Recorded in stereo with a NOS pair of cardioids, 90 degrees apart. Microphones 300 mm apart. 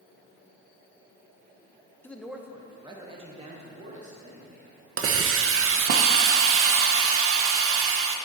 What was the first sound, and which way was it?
A man speaking, 10° left.